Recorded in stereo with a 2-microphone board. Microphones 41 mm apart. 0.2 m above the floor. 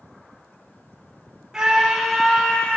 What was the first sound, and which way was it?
A scream, 10° right (ahead or behind).